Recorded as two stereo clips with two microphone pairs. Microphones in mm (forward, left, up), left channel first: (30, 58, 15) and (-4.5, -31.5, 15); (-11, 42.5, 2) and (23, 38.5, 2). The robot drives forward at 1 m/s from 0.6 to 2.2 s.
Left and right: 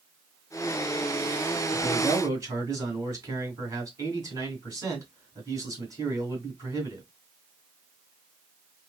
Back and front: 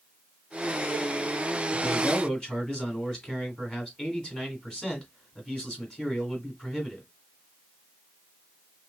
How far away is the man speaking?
About 1.9 m.